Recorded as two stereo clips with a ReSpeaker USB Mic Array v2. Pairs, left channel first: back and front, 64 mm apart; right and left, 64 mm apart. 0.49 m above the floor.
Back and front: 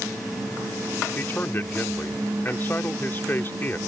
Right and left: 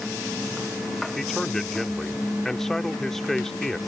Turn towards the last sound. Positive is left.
turn(degrees=-170)